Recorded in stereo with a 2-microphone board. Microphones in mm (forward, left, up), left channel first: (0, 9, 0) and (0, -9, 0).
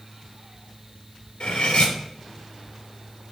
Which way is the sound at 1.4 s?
65° left (ahead or behind).